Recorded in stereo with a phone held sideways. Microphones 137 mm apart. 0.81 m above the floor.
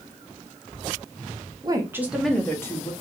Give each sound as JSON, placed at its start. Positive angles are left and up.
{"t": 1.6, "sound": "a woman speaking", "side_deg": -30, "distance_m": 0.8}